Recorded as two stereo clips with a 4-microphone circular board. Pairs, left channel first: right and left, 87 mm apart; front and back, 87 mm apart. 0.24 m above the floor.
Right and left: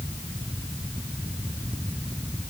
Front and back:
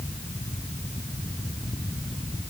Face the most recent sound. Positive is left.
No sound to turn to.